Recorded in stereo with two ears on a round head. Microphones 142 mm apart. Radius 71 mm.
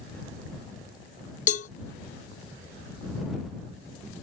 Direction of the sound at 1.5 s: 50° left (ahead or behind).